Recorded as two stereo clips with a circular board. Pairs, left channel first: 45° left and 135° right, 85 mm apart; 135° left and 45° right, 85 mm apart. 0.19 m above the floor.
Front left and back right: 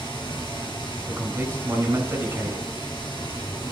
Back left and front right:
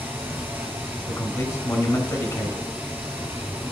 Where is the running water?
25° left, 2.5 m.